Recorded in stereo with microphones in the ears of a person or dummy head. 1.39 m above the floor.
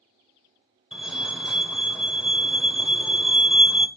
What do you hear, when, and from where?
0.9 s a fire alarm: centre (ahead or behind), 0.9 m